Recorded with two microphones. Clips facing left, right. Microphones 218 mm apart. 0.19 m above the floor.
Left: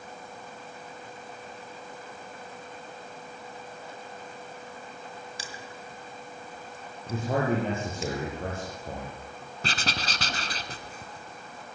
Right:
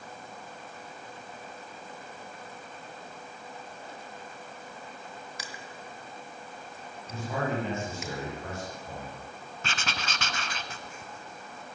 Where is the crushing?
30° left (ahead or behind), 2 m.